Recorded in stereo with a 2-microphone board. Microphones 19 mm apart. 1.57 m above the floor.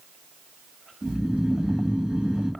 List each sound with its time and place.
1.0 s snoring: 85° right, 3 m